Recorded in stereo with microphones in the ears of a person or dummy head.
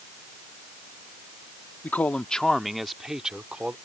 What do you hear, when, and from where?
1.8 s a man speaking: 10° left (ahead or behind); by 3.8 s 10° right (ahead or behind)